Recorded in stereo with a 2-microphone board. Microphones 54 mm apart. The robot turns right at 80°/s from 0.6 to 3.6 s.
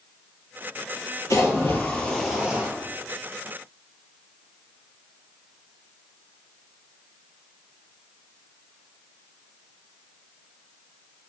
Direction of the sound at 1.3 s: 100° left.